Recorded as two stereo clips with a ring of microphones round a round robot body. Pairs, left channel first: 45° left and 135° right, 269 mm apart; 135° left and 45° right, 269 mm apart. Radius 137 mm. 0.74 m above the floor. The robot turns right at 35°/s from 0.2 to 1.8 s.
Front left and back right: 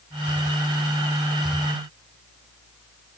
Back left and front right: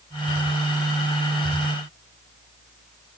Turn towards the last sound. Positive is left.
No sound to turn to.